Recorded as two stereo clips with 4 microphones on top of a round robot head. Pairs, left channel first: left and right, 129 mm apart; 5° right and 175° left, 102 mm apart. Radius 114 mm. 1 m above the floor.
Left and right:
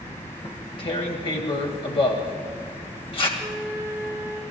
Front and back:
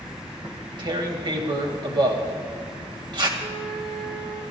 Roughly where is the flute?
Behind.